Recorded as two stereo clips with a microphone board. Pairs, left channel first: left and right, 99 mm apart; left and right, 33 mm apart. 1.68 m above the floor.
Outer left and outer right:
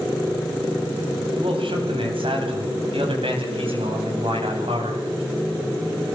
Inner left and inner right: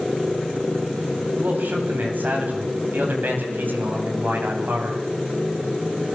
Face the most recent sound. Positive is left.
turn(degrees=-85)